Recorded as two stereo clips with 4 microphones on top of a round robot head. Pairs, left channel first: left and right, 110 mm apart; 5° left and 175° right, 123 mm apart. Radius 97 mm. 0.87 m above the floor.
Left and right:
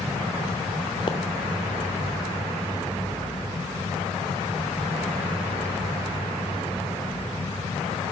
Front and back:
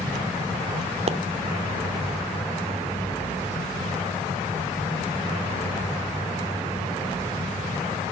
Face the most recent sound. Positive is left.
turn(degrees=155)